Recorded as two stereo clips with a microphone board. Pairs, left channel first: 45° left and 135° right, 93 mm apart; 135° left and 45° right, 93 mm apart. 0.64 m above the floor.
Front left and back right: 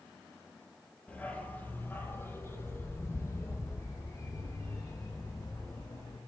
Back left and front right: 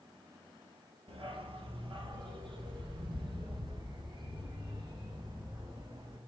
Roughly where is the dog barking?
Ahead right.